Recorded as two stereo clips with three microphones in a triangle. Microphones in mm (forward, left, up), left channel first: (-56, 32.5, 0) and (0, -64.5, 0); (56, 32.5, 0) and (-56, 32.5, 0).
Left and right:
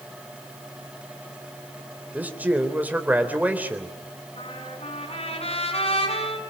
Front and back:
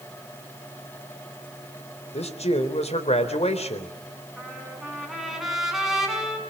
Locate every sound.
2.1 s a man speaking: 15° left, 3.5 m
4.4 s a trumpet: 95° left, 6 m